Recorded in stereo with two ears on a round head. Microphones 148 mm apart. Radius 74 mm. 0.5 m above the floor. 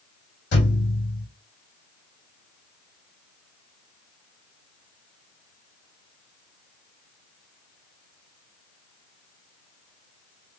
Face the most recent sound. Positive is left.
turn(degrees=75)  # may be behind; listen again after turning